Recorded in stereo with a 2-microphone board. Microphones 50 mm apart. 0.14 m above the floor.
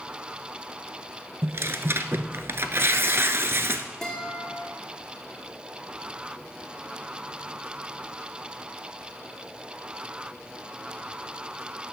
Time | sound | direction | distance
1.4 | tearing paper | 60° right (ahead or behind) | 0.6 m
4.0 | a guitar | 10° left (ahead or behind) | 4 m